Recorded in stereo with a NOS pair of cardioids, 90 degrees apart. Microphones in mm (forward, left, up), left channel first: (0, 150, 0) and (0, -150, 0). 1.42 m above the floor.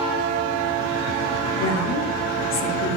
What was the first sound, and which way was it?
A woman speaking, 60° left.